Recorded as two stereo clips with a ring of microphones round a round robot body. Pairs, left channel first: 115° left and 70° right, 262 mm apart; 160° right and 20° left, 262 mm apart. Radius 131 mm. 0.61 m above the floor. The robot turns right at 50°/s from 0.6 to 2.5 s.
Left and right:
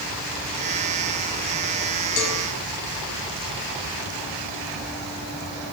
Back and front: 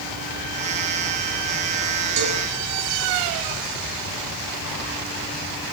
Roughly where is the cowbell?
Left.